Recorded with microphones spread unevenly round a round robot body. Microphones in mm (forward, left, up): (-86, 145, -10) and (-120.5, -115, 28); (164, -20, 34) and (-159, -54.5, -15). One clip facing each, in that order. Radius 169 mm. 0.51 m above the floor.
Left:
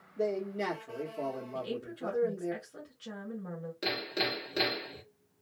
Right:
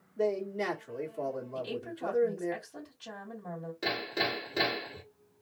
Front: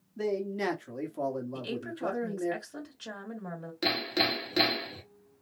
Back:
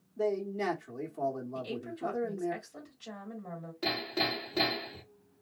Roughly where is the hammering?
Ahead.